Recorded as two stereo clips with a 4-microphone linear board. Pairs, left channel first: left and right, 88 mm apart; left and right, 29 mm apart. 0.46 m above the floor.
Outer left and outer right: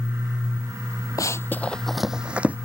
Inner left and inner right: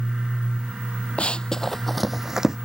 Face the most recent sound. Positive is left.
turn(degrees=-20)  # may be behind; listen again after turning